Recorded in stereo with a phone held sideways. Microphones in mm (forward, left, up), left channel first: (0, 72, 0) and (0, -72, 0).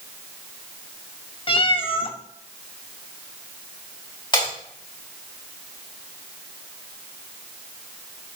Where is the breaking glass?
35° left (ahead or behind), 6.5 m.